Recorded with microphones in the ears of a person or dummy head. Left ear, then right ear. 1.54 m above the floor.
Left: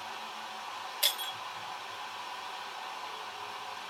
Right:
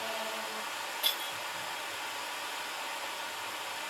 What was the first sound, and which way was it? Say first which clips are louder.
Running water: right 5 dB; 50° right (ahead or behind).